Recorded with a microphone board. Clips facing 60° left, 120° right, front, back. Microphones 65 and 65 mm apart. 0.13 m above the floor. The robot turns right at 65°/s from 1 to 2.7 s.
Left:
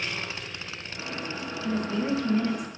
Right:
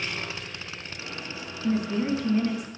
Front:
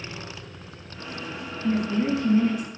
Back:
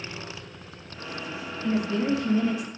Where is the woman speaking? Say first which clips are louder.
Right 2 dB, front 1 dB; 100° right, 2.5 m; by 2.7 s 30° right, 2.5 m.